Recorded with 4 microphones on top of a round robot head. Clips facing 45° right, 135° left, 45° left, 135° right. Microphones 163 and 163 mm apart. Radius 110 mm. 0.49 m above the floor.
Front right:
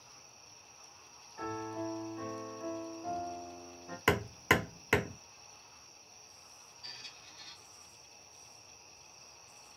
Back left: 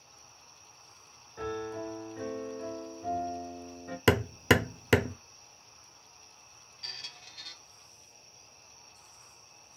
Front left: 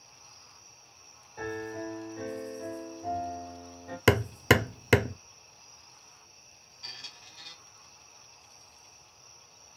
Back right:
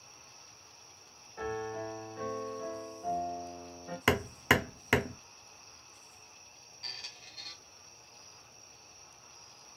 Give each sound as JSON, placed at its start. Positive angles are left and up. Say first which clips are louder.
{"t": 1.4, "sound": "a piano", "louder": "back left 3 dB, front left 1 dB", "azimuth_deg": 130, "distance_m": 2.0}
{"t": 4.1, "sound": "hammering", "louder": "back left 6 dB, front left 6 dB", "azimuth_deg": 90, "distance_m": 0.7}
{"t": 6.8, "sound": "a squeak", "louder": "back left 5 dB, front left 1 dB", "azimuth_deg": 140, "distance_m": 1.0}